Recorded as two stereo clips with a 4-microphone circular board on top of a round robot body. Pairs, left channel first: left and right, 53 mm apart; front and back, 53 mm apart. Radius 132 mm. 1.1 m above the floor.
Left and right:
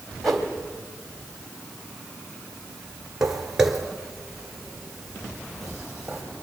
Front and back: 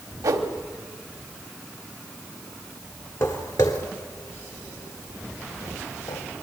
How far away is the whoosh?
About 1.5 m.